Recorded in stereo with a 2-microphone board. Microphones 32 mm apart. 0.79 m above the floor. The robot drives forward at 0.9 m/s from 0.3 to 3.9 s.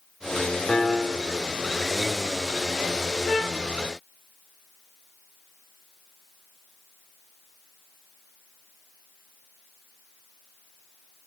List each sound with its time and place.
0.7 s a piano: 15° left (ahead or behind), 1.9 m; by 1.4 s 10° left (ahead or behind), 2.5 m
3.2 s a trumpet: 30° right (ahead or behind), 8 m